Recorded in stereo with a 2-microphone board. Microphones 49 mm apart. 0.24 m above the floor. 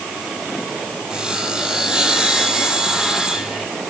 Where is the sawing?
15° right (ahead or behind), 3 m.